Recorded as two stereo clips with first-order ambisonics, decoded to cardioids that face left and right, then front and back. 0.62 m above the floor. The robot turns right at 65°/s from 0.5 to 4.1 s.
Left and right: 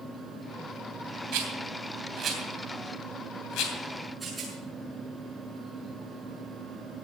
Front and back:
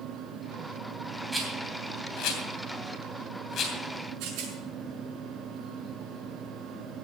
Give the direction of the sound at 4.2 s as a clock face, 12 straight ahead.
5 o'clock.